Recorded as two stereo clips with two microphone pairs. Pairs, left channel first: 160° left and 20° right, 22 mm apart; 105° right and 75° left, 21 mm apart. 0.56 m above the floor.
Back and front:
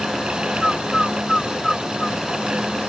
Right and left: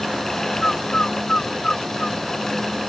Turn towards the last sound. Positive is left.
turn(degrees=-130)